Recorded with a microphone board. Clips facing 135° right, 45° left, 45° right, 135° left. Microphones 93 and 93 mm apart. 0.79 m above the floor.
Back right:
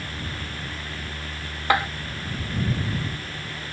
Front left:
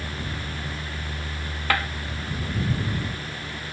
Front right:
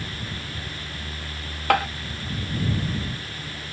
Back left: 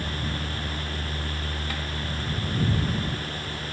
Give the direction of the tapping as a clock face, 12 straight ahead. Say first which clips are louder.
Back right 4 dB, front right 19 dB; 2 o'clock.